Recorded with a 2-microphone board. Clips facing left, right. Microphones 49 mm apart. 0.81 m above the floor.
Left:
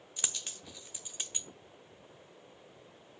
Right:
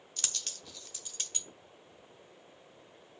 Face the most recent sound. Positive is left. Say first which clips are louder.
# left 1 dB
turn(degrees=15)  # may be behind; listen again after turning